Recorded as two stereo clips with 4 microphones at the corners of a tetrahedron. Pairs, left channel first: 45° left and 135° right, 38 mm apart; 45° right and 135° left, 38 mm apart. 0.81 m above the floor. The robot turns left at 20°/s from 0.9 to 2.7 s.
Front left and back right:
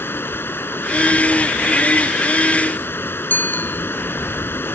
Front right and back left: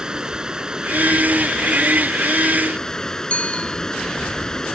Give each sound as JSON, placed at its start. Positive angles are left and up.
{"t": 0.0, "sound": "running water", "azimuth_deg": 65}
{"t": 3.3, "sound": "a bicycle bell", "azimuth_deg": 10}